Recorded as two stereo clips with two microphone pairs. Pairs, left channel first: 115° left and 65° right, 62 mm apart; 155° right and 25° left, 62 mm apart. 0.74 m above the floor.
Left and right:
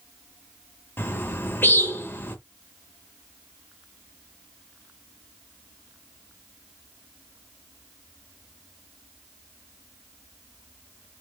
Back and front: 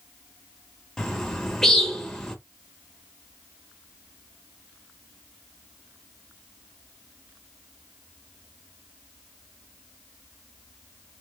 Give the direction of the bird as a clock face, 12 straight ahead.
8 o'clock.